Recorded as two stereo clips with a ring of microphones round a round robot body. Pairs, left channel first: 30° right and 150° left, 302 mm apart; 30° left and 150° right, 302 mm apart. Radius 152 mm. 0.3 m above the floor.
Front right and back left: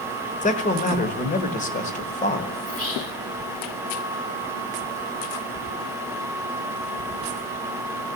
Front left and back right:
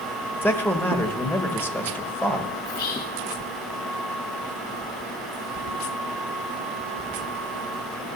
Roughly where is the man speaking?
Ahead right.